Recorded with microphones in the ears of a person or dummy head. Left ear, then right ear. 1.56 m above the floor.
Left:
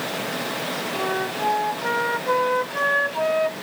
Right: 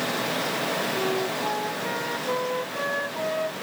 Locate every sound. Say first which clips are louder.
0.9 s a flute: left 1 dB; 20° left (ahead or behind)